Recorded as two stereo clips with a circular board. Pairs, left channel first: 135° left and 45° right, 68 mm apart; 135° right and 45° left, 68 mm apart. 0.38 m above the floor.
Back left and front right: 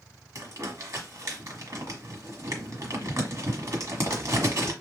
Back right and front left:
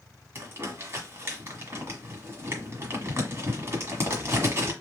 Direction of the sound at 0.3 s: 5° right.